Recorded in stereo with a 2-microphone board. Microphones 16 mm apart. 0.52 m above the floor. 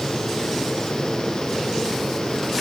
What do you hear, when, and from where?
Only background noise.